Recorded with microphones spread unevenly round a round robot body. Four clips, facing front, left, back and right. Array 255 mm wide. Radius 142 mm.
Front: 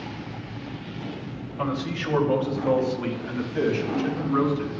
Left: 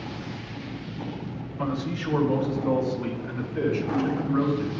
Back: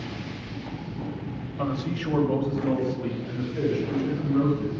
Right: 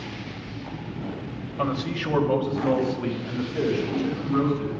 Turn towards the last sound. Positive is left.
turn(degrees=-20)